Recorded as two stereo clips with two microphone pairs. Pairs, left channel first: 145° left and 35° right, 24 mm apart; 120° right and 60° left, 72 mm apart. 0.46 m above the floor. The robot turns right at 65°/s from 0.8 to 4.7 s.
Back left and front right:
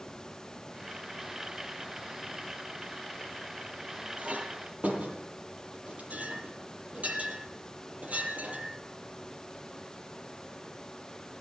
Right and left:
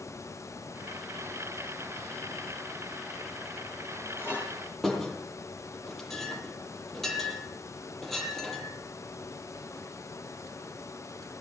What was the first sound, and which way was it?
A clink, 65° right.